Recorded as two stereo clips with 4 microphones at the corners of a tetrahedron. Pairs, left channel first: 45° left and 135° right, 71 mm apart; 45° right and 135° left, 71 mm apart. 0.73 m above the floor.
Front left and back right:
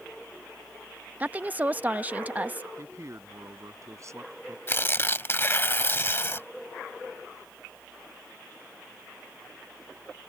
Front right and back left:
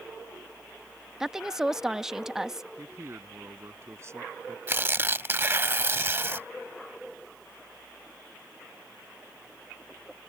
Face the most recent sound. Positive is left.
turn(degrees=90)